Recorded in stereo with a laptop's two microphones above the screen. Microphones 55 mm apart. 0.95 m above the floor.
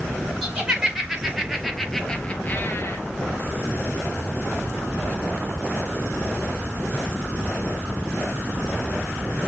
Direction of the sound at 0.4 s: 15° right (ahead or behind).